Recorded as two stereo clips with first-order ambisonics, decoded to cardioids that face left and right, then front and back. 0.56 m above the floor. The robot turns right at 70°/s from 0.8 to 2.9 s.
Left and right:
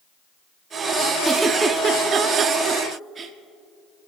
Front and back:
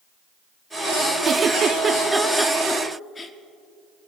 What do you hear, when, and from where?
1.2 s a giggle: 170° right, 0.6 m; by 3.3 s 55° right, 0.6 m